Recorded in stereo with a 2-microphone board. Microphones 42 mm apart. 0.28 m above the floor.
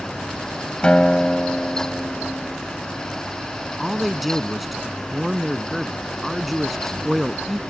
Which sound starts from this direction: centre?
A man speaking, at 3.8 s.